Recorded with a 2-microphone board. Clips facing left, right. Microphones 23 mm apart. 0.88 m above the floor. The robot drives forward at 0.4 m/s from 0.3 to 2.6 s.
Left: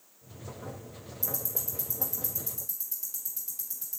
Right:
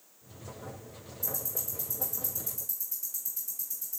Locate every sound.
1.2 s ticking: 65° left (ahead or behind), 0.9 m; by 4.0 s 45° left (ahead or behind), 1.1 m